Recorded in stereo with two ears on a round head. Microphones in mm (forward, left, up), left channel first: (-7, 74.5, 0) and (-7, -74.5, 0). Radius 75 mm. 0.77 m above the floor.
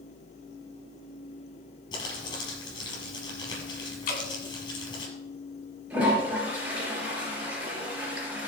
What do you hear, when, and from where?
1.9 s crumpling: 25° left (ahead or behind), 4 m
4.1 s dripping: 55° left (ahead or behind), 3 m
5.9 s a toilet flushing: 5° right (ahead or behind), 5.5 m